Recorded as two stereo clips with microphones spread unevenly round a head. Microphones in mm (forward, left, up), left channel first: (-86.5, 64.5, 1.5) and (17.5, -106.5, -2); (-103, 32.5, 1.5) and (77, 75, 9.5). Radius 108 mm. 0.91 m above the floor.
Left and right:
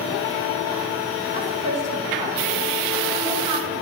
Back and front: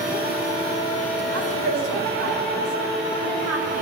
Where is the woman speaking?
5° left, 7.5 m.